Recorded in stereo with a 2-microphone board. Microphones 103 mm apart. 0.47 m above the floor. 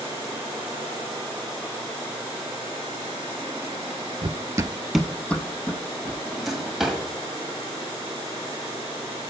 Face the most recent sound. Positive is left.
turn(degrees=0)  # may be behind; listen again after turning